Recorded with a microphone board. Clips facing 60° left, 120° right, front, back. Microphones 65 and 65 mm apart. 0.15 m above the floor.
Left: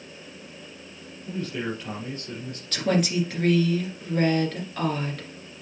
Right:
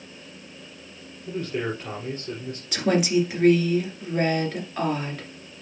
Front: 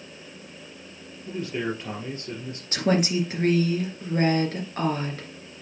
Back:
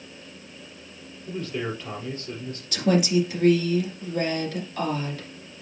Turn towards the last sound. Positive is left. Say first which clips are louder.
# right 2 dB, back 2 dB
turn(degrees=-40)